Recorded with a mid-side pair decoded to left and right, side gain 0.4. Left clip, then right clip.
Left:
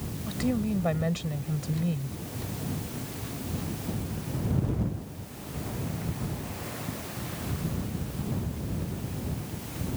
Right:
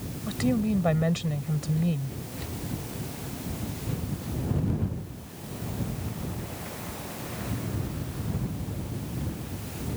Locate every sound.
0.3 s a woman speaking: 25° right